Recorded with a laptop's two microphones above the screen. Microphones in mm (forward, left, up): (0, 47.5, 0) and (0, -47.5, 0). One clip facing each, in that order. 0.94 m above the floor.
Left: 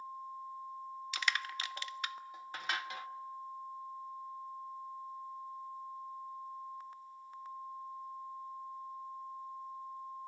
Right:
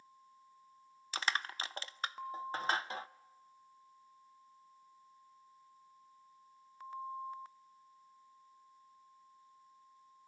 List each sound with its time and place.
1.1 s crushing: 30° right (ahead or behind), 0.5 m